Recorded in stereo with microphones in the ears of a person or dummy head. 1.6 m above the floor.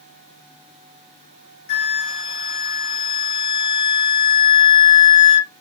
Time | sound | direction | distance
1.7 | a flute | 45° left (ahead or behind) | 1.6 m